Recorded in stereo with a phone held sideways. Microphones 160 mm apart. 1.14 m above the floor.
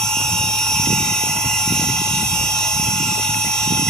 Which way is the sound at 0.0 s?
5° left (ahead or behind).